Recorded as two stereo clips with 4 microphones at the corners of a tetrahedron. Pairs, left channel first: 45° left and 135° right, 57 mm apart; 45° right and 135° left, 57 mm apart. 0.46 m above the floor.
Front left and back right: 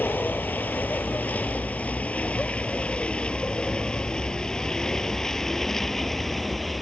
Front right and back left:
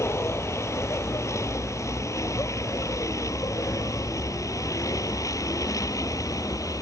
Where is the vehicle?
10° right; by 6.8 s 40° right.